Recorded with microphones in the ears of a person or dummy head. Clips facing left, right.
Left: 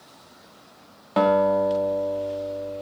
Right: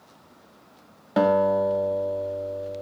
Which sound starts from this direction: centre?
A guitar, at 1.2 s.